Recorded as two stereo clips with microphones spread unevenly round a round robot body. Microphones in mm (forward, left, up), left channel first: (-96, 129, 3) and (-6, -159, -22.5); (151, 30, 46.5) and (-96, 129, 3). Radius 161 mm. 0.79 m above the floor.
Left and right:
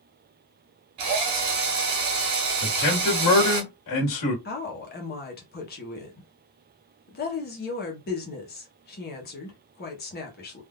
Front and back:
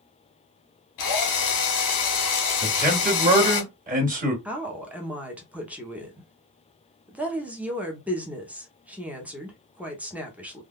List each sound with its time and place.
1.0 s a drill: 35° right, 1.3 m
2.6 s a man speaking: 110° left, 1.6 m
4.5 s a woman speaking: 105° left, 0.9 m